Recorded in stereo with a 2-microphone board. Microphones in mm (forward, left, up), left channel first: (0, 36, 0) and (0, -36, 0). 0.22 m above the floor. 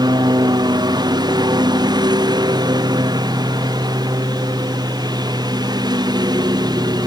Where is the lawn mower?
70° right (ahead or behind).